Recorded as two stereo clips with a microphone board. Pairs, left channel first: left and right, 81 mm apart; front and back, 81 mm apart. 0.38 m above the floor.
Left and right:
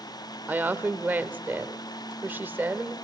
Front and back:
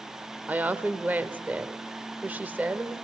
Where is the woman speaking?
135° right, 0.9 m.